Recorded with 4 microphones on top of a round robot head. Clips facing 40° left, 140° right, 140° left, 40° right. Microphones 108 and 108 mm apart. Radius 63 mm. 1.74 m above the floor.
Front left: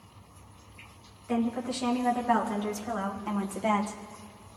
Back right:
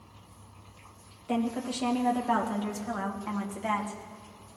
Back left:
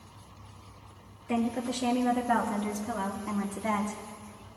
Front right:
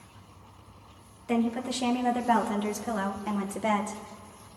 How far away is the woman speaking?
About 2.5 m.